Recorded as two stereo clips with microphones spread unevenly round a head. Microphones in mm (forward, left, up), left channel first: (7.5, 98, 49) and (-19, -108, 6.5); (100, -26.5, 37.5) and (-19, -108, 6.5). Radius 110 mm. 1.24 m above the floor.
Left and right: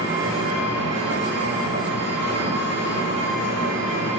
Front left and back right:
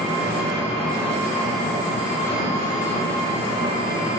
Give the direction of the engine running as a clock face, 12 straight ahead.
3 o'clock.